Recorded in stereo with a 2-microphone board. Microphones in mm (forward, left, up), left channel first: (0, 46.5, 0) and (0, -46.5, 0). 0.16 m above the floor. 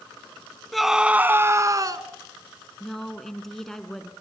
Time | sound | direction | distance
0.7 | a scream | centre (ahead or behind) | 1.1 m
2.8 | a woman speaking | 5° left (ahead or behind) | 1.5 m